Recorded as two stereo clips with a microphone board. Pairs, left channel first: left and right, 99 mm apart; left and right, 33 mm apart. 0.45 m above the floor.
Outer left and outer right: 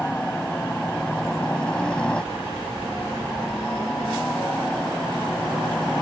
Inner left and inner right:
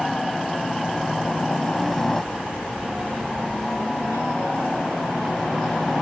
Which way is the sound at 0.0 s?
10° left (ahead or behind).